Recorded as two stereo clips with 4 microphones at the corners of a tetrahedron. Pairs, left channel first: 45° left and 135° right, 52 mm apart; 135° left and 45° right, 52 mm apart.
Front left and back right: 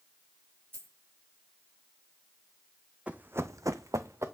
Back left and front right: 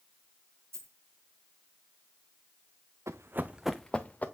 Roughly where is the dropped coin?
Right.